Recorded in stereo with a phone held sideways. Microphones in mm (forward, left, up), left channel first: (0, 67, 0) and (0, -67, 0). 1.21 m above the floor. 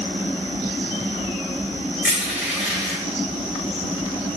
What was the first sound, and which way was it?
Crushing, 15° right (ahead or behind).